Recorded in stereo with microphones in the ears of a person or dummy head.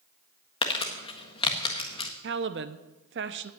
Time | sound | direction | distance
0.6 | crumpling | 35° left (ahead or behind) | 1.6 m
2.2 | a woman speaking | 65° right (ahead or behind) | 0.9 m